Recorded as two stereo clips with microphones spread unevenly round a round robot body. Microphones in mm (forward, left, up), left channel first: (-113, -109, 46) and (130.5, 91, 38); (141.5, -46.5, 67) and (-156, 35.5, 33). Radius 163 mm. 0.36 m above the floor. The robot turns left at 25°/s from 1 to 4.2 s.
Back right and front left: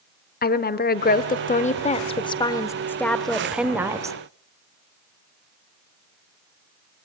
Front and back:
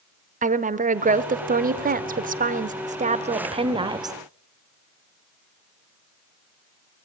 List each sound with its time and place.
0.4 s a woman speaking: 175° right, 1.1 m; by 4.2 s 105° left, 1.1 m